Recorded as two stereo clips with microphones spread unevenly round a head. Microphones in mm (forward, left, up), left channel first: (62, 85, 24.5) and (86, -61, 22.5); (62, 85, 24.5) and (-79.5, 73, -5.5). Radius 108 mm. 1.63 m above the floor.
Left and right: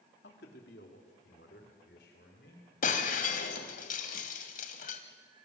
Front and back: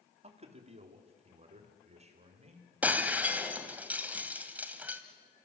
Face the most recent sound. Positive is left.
turn(degrees=100)